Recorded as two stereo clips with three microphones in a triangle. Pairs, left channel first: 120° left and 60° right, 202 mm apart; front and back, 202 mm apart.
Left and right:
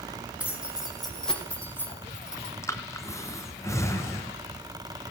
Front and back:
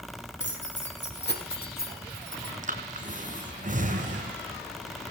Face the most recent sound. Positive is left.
turn(degrees=-170)